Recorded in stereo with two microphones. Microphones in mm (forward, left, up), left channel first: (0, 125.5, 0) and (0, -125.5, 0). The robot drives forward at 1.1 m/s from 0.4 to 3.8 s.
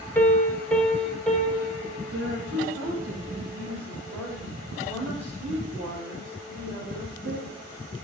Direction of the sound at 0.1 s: 10° left (ahead or behind).